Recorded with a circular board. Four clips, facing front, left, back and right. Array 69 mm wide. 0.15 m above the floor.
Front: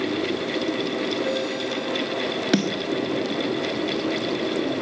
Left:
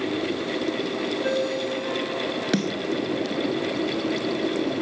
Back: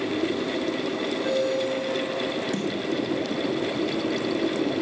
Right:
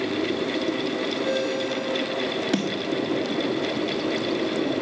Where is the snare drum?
15° left, 1.6 m.